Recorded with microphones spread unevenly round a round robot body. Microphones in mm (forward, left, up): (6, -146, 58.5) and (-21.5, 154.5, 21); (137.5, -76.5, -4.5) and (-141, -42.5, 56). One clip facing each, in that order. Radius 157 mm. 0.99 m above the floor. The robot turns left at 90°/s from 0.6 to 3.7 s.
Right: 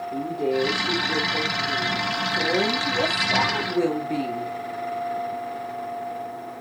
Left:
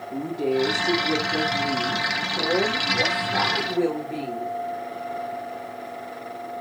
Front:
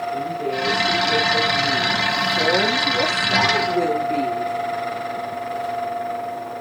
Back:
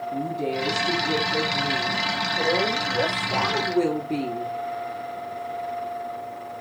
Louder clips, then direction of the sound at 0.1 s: Left 1 dB, even; 165° left.